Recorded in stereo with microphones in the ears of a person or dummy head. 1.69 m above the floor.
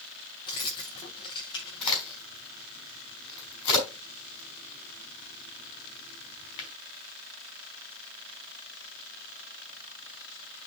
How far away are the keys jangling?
About 0.8 m.